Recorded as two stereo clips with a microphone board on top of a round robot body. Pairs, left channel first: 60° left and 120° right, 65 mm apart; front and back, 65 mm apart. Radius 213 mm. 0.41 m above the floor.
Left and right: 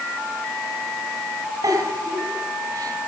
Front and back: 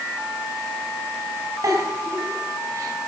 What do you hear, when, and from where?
1.6 s a giggle: 145° right, 3.5 m